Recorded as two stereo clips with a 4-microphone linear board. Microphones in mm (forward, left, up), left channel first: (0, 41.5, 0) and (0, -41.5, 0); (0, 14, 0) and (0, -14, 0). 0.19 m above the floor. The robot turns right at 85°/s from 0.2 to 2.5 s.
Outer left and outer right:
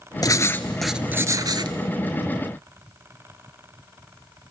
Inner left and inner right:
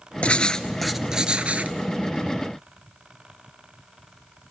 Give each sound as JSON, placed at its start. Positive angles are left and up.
{"t": 0.2, "sound": "writing", "azimuth_deg": 125, "distance_m": 0.7}